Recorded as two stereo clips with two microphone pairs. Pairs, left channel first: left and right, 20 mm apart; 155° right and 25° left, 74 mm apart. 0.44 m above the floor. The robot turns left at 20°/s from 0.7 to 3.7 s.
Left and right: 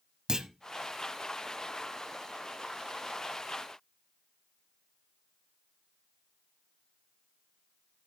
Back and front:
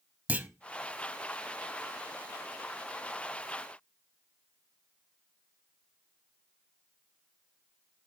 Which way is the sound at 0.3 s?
40° right.